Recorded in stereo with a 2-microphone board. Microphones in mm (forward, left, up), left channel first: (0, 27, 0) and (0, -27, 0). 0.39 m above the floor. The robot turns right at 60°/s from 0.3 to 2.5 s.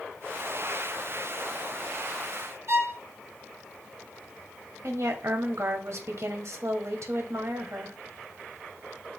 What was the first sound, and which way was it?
A violin, 55° right (ahead or behind).